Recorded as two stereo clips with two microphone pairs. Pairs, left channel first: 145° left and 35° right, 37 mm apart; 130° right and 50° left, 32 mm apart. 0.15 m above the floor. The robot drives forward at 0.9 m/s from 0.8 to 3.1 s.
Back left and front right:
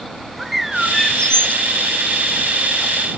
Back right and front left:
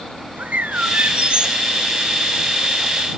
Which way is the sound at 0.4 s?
50° left.